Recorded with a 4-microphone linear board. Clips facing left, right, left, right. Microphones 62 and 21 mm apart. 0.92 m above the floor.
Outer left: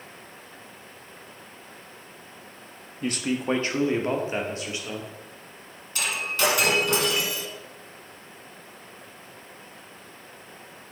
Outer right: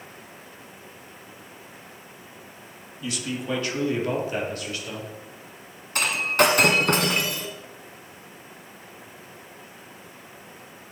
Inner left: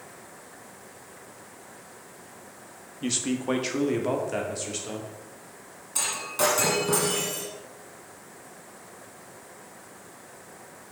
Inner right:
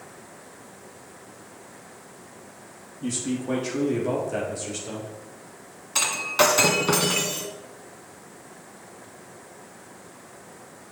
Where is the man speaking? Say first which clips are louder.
Outer left 4 dB, inner left 1 dB; 45° left (ahead or behind), 1.2 m; by 5.2 s 20° left (ahead or behind), 2.5 m.